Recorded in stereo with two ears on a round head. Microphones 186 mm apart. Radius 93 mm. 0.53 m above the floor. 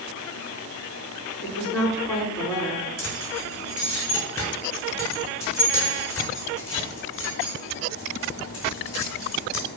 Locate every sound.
1.4 s a woman speaking: 10° left (ahead or behind), 5.5 m
3.0 s keys jangling: 70° left (ahead or behind), 5 m